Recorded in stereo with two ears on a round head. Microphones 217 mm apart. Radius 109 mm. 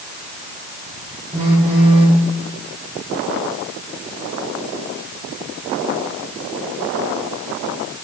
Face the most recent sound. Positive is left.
turn(degrees=-30)  # may be behind; listen again after turning